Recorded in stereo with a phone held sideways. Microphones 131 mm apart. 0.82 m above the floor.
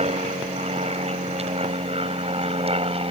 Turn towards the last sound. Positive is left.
turn(degrees=-45)  # may be behind; listen again after turning